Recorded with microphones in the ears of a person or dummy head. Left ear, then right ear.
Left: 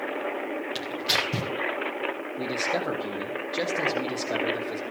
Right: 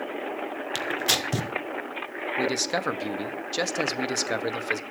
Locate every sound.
0.8 s tearing paper: 75° right (ahead or behind), 1.7 m
2.4 s a man speaking: 85° right, 1.9 m